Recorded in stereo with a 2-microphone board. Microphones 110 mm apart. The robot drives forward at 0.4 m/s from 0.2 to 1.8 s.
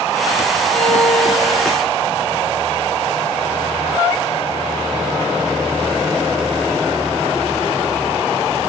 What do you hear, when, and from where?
0.7 s a violin: 10° left (ahead or behind), 8 m